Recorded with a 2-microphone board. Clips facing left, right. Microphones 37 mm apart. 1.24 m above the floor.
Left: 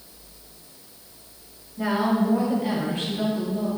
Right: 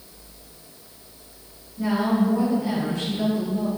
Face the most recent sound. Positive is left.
turn(degrees=15)  # may be behind; listen again after turning